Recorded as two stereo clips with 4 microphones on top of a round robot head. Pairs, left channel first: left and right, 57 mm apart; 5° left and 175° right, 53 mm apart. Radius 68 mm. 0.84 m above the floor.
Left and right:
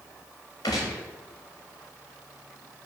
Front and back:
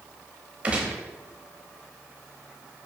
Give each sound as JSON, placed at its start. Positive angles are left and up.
{"t": 0.6, "sound": "a gunshot", "azimuth_deg": 125, "distance_m": 0.7}